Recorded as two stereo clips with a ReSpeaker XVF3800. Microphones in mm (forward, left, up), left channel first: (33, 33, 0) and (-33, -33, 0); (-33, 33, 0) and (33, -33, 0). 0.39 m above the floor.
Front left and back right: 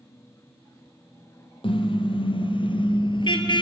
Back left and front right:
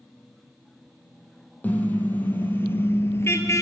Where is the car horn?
60° left, 4.5 m; by 3.6 s 75° left, 2.5 m.